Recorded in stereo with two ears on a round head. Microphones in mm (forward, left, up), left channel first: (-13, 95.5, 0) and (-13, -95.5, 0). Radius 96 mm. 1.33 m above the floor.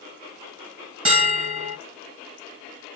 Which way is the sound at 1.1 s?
25° right (ahead or behind).